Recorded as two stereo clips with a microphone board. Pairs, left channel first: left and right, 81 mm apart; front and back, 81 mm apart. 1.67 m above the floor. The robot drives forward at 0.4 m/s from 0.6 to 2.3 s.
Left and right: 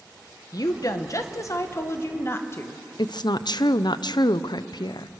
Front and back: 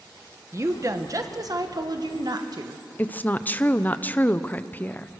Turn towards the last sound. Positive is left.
turn(degrees=70)